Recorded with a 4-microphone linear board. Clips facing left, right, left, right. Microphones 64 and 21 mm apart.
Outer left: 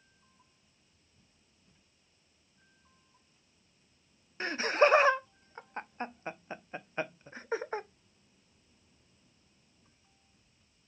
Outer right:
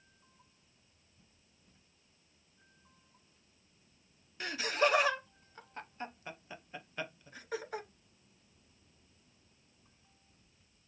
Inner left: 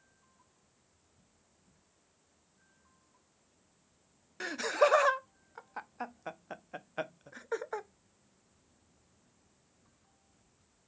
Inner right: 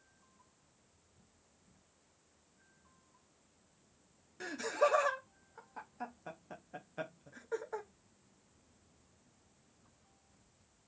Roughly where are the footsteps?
No footsteps in this recording.